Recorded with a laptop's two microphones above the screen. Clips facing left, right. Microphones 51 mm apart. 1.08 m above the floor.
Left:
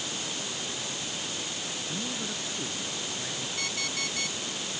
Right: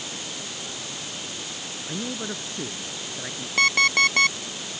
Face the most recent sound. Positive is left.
turn(degrees=-70)  # may be behind; listen again after turning